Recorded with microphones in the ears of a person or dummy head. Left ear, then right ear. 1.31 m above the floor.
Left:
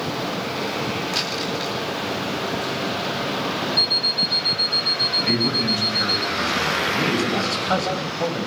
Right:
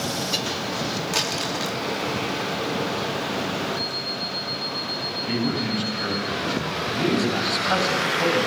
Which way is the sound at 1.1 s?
20° right (ahead or behind).